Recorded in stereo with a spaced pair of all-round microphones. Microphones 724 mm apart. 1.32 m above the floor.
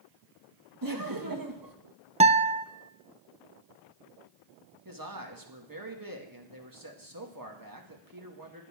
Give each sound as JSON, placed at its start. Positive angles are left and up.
{"t": 0.8, "sound": "laughter", "side_deg": -25, "distance_m": 1.9}
{"t": 2.2, "sound": "a guitar", "side_deg": -10, "distance_m": 0.6}
{"t": 4.8, "sound": "a man speaking", "side_deg": -25, "distance_m": 2.0}